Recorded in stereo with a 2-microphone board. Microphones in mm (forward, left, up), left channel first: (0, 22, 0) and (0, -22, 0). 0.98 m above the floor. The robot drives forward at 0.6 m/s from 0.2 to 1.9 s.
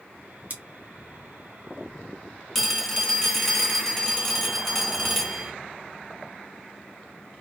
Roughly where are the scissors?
Right.